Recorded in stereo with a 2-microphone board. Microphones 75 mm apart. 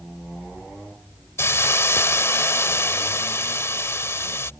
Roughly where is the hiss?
Left.